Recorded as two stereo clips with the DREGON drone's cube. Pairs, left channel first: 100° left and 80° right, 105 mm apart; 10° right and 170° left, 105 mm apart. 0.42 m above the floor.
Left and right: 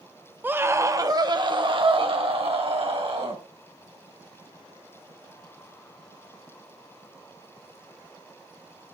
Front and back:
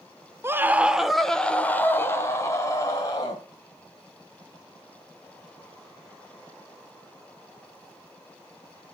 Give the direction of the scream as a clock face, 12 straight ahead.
5 o'clock.